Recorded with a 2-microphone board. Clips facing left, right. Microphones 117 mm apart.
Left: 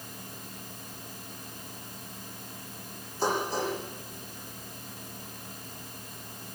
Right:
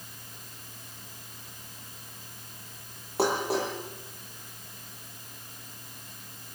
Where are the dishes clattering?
80° right, 9 m.